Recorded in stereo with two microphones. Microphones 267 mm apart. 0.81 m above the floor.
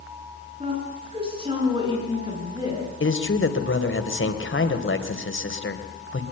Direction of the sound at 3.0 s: 50° left (ahead or behind).